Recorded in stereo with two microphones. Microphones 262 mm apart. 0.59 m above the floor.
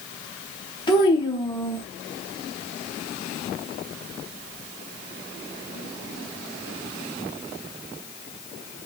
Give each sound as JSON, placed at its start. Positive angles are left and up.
{"t": 0.9, "sound": "a child speaking", "side_deg": 15, "distance_m": 0.8}